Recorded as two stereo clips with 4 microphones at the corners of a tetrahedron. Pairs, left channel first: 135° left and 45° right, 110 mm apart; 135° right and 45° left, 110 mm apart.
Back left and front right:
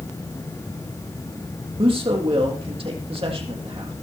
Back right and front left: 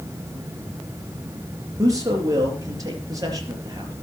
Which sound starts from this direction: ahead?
A man speaking, at 1.8 s.